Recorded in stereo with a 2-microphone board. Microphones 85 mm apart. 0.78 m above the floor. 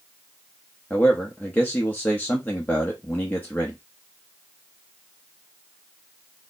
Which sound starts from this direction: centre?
A man speaking, at 0.9 s.